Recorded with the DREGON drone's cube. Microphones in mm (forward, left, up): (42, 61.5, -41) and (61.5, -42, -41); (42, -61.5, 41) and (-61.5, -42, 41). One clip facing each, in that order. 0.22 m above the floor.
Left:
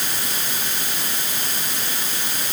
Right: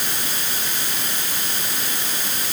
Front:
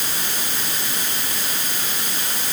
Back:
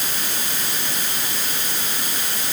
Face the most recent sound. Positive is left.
No sound to turn to.